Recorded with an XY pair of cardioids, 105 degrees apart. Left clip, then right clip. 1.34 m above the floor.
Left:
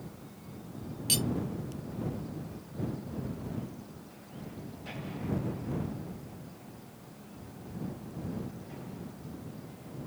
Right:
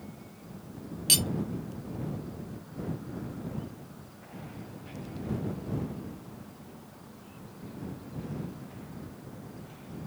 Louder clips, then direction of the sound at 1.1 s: Right 5 dB; 40° right.